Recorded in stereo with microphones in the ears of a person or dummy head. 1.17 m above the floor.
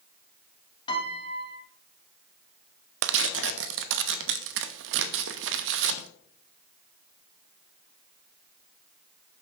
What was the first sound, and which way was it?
A piano, 30° left (ahead or behind).